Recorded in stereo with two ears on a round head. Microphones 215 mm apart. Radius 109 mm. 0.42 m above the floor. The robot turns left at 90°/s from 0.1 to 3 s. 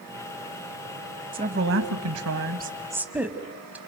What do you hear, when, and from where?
1.3 s a woman speaking: 20° right, 2.5 m; by 3.8 s 170° right, 2.5 m